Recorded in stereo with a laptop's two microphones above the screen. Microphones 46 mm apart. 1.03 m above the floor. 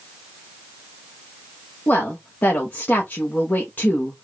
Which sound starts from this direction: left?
A woman speaking, at 1.9 s.